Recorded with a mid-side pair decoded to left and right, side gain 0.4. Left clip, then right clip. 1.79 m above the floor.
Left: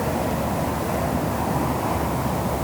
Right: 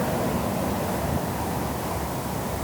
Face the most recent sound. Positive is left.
No sound to turn to.